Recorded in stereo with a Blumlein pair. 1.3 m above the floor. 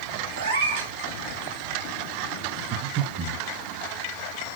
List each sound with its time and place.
0.4 s a cat meowing: 70° right, 1.7 m
2.7 s breathing: 35° right, 1.5 m